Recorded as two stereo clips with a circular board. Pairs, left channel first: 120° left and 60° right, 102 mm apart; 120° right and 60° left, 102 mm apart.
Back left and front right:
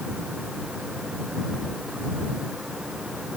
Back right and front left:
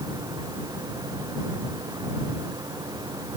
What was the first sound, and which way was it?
Only background noise.